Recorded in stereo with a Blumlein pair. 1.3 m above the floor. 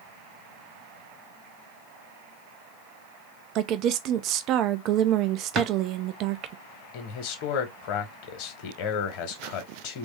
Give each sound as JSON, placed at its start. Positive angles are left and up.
{"t": 3.5, "sound": "a woman speaking", "azimuth_deg": -35, "distance_m": 0.5}
{"t": 5.5, "sound": "a drawer", "azimuth_deg": -25, "distance_m": 1.2}
{"t": 6.9, "sound": "a man speaking", "azimuth_deg": 45, "distance_m": 1.2}